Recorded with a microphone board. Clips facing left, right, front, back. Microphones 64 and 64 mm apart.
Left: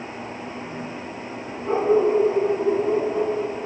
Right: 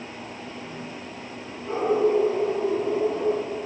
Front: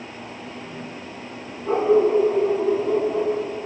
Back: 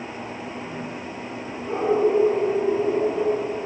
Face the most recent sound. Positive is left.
turn(degrees=40)